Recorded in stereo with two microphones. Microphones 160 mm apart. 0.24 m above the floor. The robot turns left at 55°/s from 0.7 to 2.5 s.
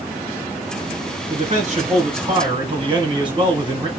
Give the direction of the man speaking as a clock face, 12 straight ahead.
2 o'clock.